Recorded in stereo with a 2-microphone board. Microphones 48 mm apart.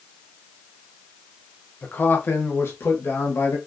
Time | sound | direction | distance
1.8 | a man speaking | 40° left (ahead or behind) | 1.0 m